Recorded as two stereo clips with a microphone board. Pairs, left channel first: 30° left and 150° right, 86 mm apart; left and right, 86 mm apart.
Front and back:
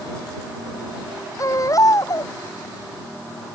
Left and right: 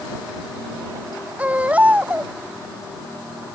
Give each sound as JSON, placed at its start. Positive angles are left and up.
{"t": 1.4, "sound": "a baby crying", "azimuth_deg": -15}